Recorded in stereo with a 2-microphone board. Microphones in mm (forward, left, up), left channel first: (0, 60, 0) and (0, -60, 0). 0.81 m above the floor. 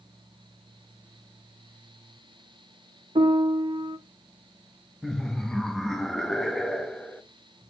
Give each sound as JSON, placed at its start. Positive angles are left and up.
{"t": 3.1, "sound": "a piano", "side_deg": -45, "distance_m": 0.6}
{"t": 5.0, "sound": "laughter", "side_deg": 5, "distance_m": 0.8}